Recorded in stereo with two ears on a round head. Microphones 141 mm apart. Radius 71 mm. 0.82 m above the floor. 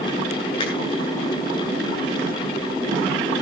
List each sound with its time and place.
0.6 s a finger snap: 35° left (ahead or behind), 8.5 m